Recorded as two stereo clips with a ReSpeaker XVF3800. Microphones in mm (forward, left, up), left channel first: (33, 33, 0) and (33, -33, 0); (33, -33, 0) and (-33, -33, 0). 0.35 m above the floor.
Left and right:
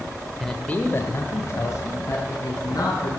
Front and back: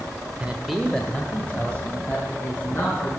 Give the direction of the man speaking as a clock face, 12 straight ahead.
6 o'clock.